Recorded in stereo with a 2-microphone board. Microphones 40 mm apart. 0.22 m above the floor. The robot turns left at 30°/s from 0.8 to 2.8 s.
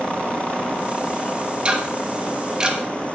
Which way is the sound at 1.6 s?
25° right (ahead or behind).